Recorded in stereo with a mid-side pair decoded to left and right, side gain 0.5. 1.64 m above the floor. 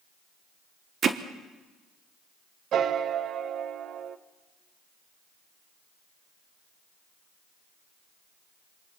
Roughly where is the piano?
Ahead right.